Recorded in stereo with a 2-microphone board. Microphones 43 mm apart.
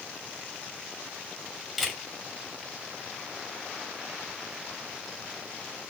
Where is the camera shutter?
Centre (ahead or behind), 1.7 m.